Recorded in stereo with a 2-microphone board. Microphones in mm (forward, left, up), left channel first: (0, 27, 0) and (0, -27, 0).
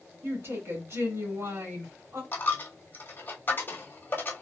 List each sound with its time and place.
0.2 s a woman speaking: 50° right (ahead or behind), 1.9 m
2.3 s a dropped coin: 40° left (ahead or behind), 1.1 m